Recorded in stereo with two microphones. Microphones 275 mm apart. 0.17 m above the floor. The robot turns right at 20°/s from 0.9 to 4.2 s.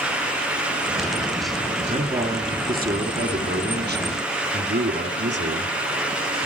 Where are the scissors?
No scissors in this recording.